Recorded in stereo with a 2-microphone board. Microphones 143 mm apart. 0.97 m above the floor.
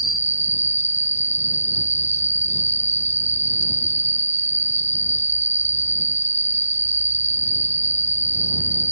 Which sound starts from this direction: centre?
An insect, at 0.0 s.